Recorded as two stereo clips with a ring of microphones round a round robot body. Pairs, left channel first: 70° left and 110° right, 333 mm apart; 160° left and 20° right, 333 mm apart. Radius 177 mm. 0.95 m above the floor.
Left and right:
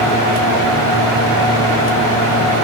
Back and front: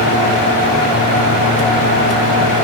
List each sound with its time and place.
Only background noise.